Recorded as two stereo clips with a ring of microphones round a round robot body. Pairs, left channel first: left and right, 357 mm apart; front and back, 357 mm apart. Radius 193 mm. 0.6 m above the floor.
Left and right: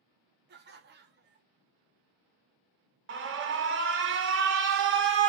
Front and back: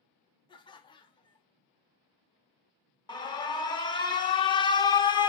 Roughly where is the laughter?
Ahead right.